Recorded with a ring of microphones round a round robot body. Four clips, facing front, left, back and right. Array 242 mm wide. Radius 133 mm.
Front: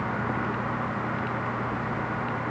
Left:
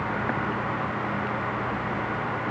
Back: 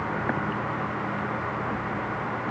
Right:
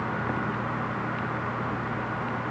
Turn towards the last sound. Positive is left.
No sound to turn to.